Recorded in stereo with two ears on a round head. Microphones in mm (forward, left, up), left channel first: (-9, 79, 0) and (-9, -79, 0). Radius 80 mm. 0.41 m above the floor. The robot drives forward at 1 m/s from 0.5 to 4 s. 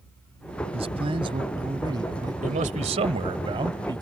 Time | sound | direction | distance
0.7 | a man speaking | 35° right (ahead or behind) | ?
2.4 | a man speaking | 45° right (ahead or behind) | ?